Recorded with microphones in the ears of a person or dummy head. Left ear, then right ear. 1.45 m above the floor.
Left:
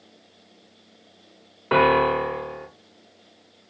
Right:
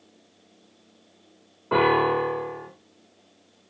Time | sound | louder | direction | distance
1.7 | a piano | left 2 dB | 75° left (ahead or behind) | 0.6 m